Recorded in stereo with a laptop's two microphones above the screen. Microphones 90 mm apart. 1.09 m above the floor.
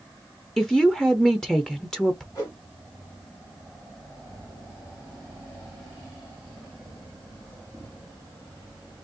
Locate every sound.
0.6 s a woman speaking: 5° left (ahead or behind), 0.8 m
2.4 s a whoosh: 40° left (ahead or behind), 2.0 m